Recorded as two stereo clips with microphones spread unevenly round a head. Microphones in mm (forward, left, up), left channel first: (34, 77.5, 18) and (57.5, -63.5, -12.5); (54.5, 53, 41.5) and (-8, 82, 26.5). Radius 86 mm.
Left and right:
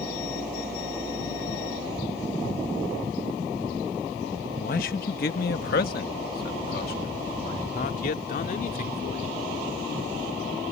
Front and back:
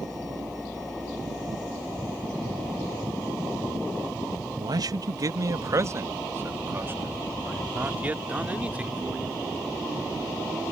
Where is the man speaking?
135° left; by 9.4 s 80° left.